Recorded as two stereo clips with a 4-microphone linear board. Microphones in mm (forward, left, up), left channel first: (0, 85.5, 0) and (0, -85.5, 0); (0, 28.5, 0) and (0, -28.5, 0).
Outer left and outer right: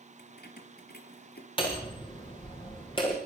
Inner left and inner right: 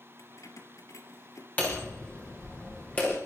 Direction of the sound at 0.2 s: 70° left (ahead or behind).